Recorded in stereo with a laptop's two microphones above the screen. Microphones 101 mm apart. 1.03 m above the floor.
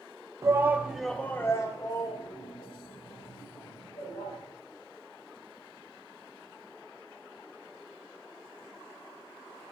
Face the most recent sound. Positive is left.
turn(degrees=60)  # may be behind; listen again after turning